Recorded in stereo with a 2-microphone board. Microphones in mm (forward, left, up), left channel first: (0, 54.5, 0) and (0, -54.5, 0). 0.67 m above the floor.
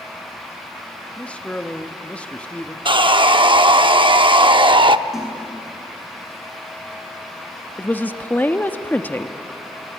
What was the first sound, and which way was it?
A man speaking, 10° left (ahead or behind).